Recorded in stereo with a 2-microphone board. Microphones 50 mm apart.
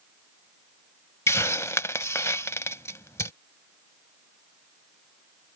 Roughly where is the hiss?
Left.